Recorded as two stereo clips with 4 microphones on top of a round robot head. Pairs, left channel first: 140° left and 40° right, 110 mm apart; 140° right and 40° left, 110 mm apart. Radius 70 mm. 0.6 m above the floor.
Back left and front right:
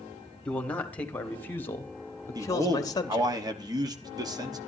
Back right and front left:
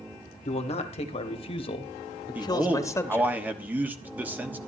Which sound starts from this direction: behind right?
A man speaking, at 0.5 s.